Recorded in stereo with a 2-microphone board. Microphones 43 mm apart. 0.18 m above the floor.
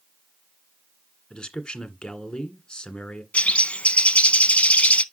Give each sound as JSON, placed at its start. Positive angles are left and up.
{"t": 1.3, "sound": "a man speaking", "side_deg": 20, "distance_m": 1.8}
{"t": 3.3, "sound": "a bird", "side_deg": 30, "distance_m": 0.5}